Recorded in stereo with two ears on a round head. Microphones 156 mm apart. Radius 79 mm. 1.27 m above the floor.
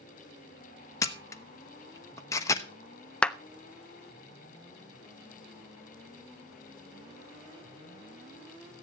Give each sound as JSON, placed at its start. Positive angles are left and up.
{"t": 1.0, "sound": "a camera shutter", "side_deg": 15, "distance_m": 1.0}
{"t": 3.2, "sound": "a clap", "side_deg": 5, "distance_m": 0.5}